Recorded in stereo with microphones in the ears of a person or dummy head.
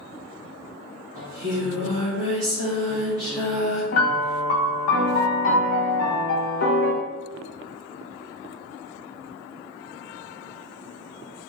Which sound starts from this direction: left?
A piano, at 3.9 s.